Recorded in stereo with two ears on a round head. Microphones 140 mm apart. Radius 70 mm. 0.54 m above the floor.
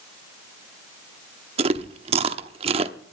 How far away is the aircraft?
No aircraft in this recording.